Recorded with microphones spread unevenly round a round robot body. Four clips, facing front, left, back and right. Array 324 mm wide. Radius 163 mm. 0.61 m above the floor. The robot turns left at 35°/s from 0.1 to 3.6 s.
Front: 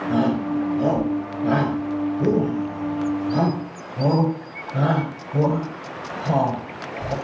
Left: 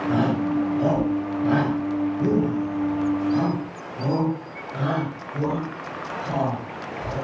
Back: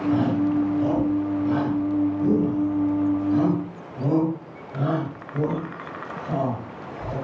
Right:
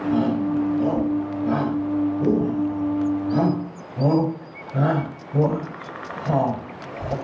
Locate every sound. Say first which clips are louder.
0.1 s a shout: right 1 dB, front 1 dB; 80° left, 7.5 m; by 7.2 s 45° right, 7.5 m